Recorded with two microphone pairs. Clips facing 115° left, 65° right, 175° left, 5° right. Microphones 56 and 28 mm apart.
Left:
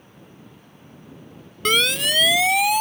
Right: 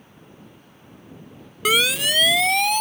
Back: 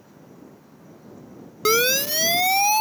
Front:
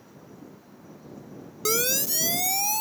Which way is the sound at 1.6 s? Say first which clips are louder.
Even, back 7 dB; 150° right.